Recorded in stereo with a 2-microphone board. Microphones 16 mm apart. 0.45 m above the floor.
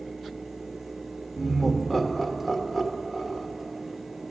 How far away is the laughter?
About 1.2 m.